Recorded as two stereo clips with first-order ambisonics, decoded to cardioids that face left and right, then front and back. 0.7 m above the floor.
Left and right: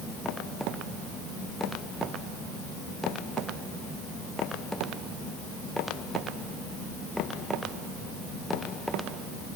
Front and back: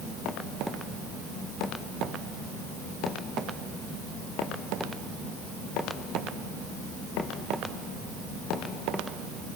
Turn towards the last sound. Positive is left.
No sound to turn to.